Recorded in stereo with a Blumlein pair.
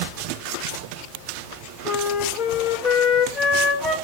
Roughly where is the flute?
Ahead left.